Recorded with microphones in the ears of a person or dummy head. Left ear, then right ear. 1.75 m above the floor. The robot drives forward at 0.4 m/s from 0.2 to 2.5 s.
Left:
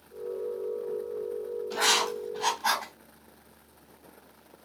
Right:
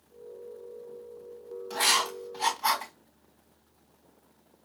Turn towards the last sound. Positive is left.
turn(degrees=-45)  # may be behind; listen again after turning